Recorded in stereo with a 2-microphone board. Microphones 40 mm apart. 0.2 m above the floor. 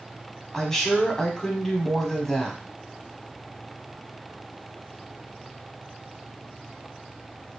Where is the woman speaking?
10° left (ahead or behind), 1.0 m.